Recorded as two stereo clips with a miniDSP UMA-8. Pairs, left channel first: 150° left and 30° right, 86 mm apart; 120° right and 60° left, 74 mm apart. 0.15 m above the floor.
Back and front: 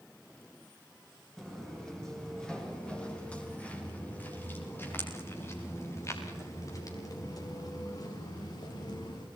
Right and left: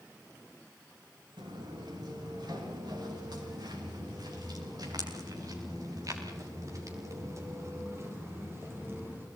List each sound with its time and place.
1.4 s footsteps: 60° left, 9.5 m; by 9.2 s 120° left, 8.5 m